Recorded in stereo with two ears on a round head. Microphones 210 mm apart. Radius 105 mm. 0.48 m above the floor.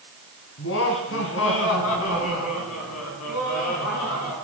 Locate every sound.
0.6 s laughter: 55° left (ahead or behind), 5.5 m; by 4.3 s 80° left, 7.5 m